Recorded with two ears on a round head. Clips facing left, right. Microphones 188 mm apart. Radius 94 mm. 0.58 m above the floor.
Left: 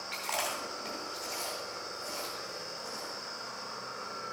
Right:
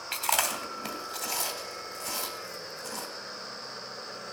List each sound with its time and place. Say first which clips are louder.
0.1 s chewing: right 4 dB; 75° right (ahead or behind), 2.5 m